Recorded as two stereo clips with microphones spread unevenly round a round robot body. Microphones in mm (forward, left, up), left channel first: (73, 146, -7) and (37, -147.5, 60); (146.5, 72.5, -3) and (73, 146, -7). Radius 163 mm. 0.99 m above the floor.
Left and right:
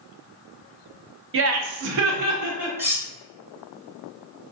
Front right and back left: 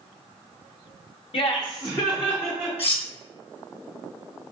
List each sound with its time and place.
1.3 s laughter: 45° right, 0.6 m; by 2.7 s 135° right, 0.9 m
2.8 s cutlery clinking: 20° right, 0.8 m